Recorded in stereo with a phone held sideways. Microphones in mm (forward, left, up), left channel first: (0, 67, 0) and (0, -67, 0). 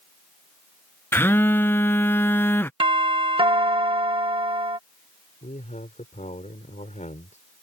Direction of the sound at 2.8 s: 40° right (ahead or behind).